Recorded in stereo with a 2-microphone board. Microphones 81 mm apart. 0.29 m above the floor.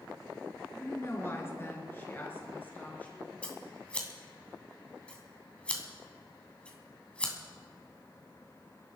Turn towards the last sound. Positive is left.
turn(degrees=15)  # may be behind; listen again after turning